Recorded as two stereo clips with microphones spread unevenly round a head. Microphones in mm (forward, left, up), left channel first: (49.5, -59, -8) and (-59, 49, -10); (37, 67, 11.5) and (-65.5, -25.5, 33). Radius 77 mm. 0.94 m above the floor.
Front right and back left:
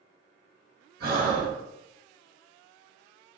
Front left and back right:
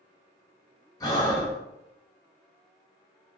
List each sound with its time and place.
1.0 s breathing: 105° left, 1.3 m